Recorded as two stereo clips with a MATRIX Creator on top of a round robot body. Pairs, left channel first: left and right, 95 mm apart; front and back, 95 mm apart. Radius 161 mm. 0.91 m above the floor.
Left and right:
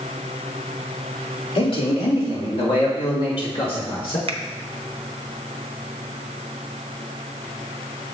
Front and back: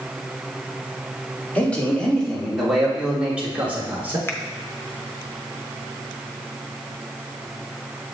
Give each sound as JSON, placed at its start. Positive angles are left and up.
{"t": 1.6, "sound": "a man speaking", "azimuth_deg": 75, "distance_m": 3.0}
{"t": 4.3, "sound": "a finger snap", "azimuth_deg": -65, "distance_m": 0.6}